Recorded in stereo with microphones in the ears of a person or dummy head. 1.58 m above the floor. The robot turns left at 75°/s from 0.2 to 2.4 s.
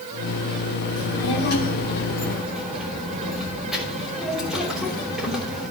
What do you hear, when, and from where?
1.0 s a child speaking: 100° left, 3 m; by 5.7 s 5° right, 3 m